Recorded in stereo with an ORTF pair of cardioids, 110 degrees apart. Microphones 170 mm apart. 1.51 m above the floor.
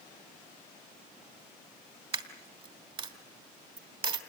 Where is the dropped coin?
35° right, 2.5 m.